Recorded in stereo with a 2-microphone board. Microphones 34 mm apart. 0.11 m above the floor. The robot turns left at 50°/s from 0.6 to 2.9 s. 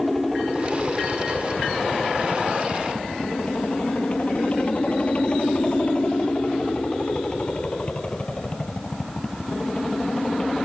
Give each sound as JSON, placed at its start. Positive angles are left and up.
{"t": 0.0, "sound": "a helicopter", "side_deg": 0}